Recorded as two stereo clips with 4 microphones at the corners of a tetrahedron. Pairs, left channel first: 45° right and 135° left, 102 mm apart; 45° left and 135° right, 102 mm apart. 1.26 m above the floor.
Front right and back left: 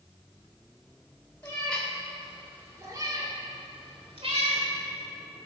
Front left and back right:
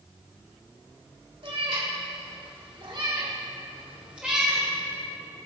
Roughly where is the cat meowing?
Behind right.